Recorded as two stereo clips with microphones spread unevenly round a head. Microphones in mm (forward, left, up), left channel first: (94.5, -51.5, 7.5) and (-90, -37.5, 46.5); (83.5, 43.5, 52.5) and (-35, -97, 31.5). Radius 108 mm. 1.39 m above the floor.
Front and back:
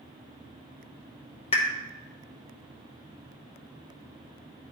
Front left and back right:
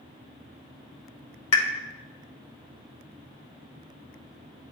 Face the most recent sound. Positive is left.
turn(degrees=65)